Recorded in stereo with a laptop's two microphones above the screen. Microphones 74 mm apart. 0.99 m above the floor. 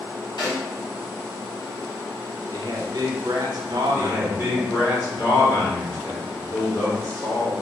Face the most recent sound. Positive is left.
turn(degrees=55)  # may be behind; listen again after turning